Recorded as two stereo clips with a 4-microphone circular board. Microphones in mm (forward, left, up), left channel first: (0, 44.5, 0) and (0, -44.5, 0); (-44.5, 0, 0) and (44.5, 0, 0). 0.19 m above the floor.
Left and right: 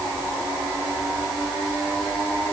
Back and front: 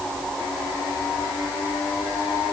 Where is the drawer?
I don't hear a drawer.